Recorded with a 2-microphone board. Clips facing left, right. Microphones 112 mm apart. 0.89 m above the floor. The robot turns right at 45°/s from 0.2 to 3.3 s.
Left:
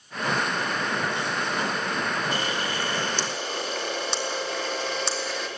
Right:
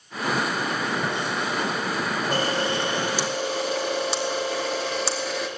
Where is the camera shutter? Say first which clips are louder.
Right 4 dB; 45° right, 2 m; by 5.5 s 5° right, 2 m.